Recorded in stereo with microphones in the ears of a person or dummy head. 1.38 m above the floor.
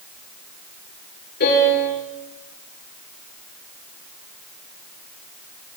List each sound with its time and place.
1.4 s a piano: 60° left (ahead or behind), 9.5 m